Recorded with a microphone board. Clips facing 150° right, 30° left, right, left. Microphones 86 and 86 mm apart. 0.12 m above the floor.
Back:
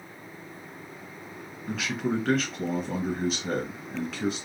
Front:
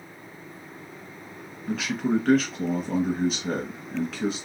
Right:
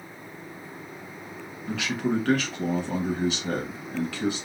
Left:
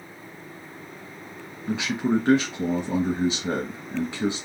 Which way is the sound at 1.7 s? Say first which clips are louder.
Front 4 dB, left 3 dB; 120° left.